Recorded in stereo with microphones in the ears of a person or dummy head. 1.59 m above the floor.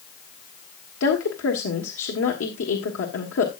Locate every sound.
1.0 s a woman speaking: 70° left (ahead or behind), 1.4 m